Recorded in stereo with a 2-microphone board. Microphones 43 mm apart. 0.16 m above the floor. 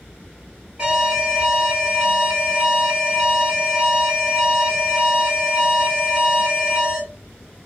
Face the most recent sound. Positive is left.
turn(degrees=-20)  # may be behind; listen again after turning